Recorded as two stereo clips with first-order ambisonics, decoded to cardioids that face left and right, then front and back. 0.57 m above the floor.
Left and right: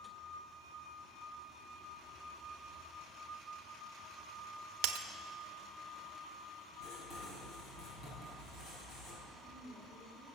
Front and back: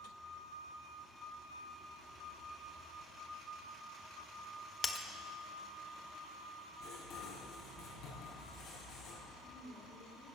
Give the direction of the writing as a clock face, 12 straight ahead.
11 o'clock.